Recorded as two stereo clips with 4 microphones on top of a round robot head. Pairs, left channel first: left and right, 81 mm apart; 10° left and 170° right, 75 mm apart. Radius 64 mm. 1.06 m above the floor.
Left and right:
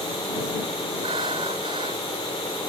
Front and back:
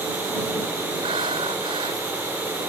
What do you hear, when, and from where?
1.0 s breathing: 135° right